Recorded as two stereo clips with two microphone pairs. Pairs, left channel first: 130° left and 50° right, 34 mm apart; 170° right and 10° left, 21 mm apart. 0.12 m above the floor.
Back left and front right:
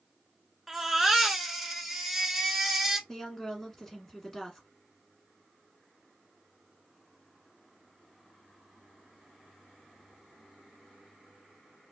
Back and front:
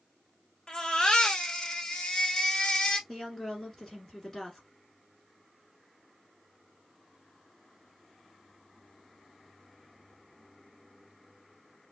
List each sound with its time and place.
0.7 s a baby crying: 130° right, 1.0 m
3.1 s a woman speaking: 170° right, 1.7 m